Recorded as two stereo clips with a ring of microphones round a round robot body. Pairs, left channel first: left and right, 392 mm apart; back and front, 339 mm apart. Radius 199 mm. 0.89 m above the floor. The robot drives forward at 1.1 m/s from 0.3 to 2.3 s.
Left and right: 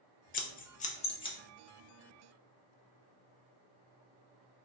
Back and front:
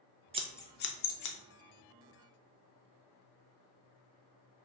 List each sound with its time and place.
0.3 s scissors: 50° left, 0.7 m; by 1.4 s 165° left, 1.1 m